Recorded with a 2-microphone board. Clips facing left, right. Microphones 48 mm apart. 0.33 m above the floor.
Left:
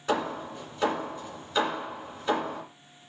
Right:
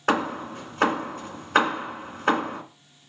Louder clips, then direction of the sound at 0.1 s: Right 4 dB; 65° right (ahead or behind).